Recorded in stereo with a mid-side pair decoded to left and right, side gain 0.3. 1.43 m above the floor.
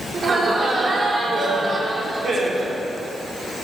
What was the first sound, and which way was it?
Laughter, 60° right.